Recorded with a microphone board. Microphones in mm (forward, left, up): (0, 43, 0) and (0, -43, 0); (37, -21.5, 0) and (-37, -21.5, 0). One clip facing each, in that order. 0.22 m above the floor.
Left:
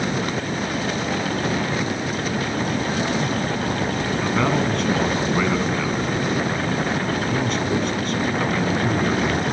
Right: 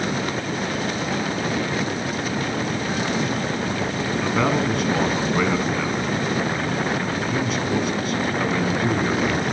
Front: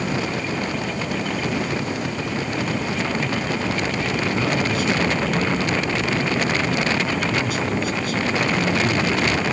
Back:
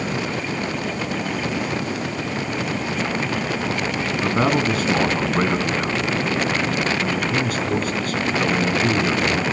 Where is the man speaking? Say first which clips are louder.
Even, back 5 dB; 175° right, 2.5 m.